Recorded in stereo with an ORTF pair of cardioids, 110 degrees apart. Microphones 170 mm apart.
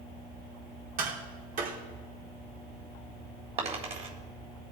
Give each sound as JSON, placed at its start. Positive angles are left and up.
{"t": 1.0, "sound": "tapping", "azimuth_deg": -60, "distance_m": 4.5}
{"t": 3.6, "sound": "a dropped coin", "azimuth_deg": -40, "distance_m": 4.0}